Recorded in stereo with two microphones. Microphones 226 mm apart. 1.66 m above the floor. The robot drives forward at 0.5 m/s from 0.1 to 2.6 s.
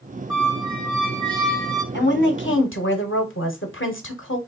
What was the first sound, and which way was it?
A squeak, centre (ahead or behind).